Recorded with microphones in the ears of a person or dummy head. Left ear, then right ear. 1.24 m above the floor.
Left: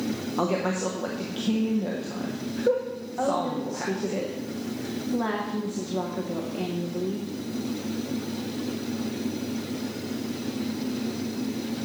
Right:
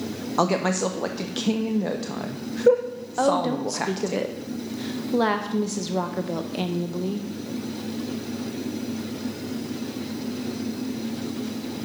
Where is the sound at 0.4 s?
80° right, 0.7 m.